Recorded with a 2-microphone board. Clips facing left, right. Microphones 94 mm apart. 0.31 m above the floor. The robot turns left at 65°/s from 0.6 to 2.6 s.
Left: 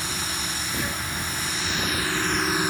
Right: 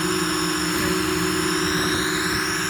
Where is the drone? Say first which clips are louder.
Right 10 dB; 60° right; by 2.7 s 170° left.